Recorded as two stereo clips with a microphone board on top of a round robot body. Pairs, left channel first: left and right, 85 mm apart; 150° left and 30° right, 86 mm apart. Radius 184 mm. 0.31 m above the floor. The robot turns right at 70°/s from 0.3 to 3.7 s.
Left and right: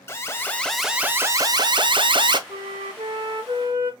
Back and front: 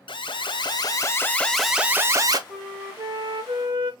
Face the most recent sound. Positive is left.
turn(degrees=-35)